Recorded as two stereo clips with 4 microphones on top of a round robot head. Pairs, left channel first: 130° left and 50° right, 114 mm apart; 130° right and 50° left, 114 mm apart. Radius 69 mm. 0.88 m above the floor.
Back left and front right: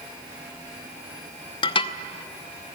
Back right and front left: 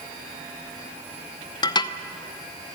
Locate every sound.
1.6 s dishes clattering: 175° left, 0.8 m